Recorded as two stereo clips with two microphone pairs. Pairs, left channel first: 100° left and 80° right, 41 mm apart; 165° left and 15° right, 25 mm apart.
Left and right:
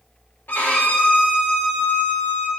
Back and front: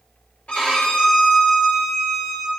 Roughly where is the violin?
Behind left.